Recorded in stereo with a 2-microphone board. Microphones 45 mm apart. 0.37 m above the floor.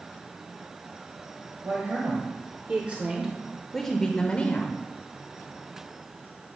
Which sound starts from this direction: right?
A woman speaking, at 1.6 s.